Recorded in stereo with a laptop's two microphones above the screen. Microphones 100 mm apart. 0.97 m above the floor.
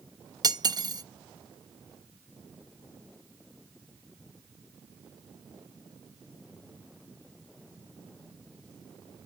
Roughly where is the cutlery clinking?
Right.